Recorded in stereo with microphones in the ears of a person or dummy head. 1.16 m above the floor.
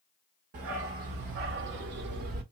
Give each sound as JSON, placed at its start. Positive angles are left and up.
{"t": 0.5, "sound": "a dog barking", "side_deg": -50, "distance_m": 1.4}